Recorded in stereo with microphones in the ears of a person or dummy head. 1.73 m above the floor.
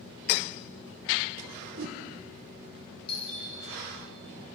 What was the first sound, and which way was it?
A whoosh, 60° right (ahead or behind).